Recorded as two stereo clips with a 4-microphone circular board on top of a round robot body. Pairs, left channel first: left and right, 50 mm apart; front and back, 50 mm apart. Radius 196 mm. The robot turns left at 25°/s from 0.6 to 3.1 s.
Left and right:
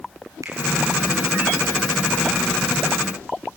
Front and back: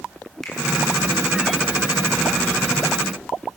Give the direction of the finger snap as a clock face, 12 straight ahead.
3 o'clock.